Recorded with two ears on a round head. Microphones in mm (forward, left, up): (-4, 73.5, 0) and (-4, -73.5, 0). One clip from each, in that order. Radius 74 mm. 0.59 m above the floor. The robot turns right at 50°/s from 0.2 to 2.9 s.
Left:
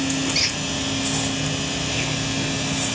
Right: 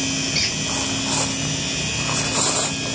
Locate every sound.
0.3 s a squeak: 10° left (ahead or behind), 0.6 m; by 0.6 s 15° left (ahead or behind), 0.6 m